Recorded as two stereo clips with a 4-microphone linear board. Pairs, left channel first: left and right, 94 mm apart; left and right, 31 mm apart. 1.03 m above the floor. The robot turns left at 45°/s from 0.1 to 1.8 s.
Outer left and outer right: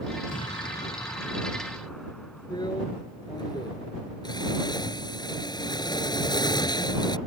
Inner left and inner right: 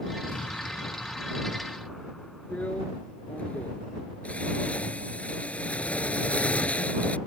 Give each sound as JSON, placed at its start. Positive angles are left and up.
{"t": 0.3, "sound": "an explosion", "azimuth_deg": 75}
{"t": 2.5, "sound": "a drill", "side_deg": 50}